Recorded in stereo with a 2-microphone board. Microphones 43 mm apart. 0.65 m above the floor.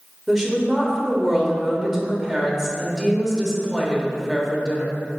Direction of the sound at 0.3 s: 10° right (ahead or behind).